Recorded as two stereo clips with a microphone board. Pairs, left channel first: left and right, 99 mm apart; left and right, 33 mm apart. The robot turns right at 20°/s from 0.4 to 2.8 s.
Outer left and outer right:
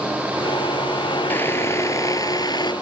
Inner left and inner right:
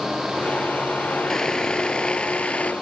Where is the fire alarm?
I don't hear a fire alarm.